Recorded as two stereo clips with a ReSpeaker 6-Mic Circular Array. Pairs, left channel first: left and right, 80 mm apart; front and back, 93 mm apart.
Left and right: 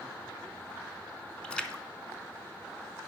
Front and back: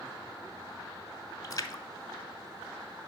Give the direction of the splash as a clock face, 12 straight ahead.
11 o'clock.